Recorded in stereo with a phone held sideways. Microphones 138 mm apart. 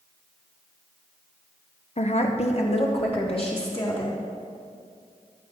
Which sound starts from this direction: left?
A woman speaking, at 2.0 s.